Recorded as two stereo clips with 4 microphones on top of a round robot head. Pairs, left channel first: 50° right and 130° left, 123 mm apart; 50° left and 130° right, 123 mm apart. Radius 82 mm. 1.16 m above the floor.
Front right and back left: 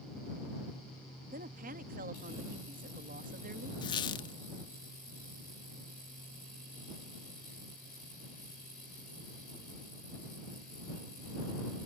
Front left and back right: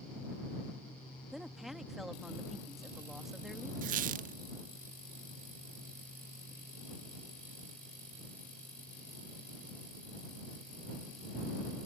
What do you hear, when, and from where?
1.3 s a woman speaking: 140° left
3.8 s a squeak: 105° right